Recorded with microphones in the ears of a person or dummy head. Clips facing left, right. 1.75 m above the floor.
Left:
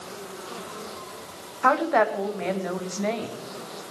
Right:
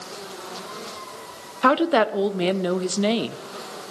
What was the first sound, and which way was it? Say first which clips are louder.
A woman speaking: right 3 dB; 45° right (ahead or behind).